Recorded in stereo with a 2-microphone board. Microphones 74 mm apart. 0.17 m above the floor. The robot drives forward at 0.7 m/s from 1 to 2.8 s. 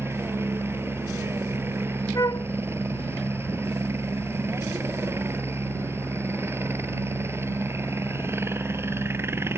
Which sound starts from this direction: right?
A helicopter, at 0.0 s.